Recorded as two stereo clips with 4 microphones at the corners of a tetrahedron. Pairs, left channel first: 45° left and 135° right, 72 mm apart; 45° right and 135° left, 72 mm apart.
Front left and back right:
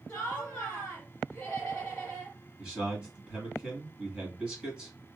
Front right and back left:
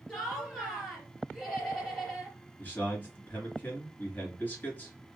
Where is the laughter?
20° left, 1.4 m.